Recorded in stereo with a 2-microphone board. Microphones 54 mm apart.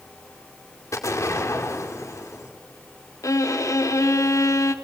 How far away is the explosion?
About 2.5 m.